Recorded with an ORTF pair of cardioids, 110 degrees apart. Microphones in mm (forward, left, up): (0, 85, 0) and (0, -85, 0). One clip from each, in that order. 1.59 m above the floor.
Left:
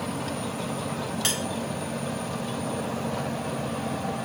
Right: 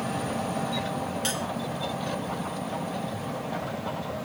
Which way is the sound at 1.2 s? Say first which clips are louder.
Left 4 dB; 35° left.